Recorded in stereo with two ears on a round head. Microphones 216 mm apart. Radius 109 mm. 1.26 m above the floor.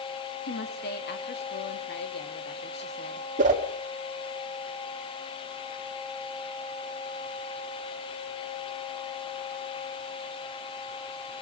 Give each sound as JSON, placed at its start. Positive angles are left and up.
{"t": 0.5, "sound": "a woman speaking", "side_deg": 45, "distance_m": 3.0}
{"t": 3.4, "sound": "a whoosh", "side_deg": -30, "distance_m": 2.0}